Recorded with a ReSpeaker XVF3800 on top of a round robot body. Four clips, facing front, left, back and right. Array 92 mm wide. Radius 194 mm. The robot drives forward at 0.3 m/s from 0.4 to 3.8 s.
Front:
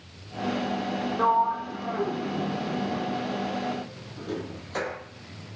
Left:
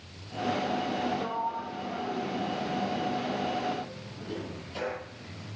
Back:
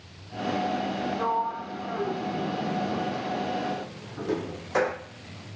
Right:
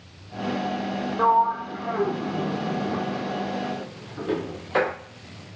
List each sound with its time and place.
1.2 s a sliding door: 65° right, 1.0 m; by 5.0 s 115° right, 0.9 m